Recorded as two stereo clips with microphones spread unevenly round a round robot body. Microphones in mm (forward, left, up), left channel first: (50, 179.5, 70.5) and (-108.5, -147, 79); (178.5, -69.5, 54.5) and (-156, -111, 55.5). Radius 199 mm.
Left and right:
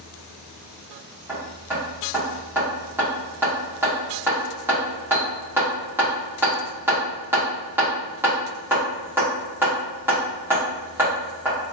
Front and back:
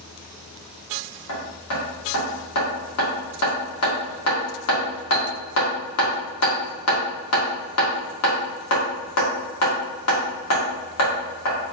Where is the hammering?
30° right, 2.0 m.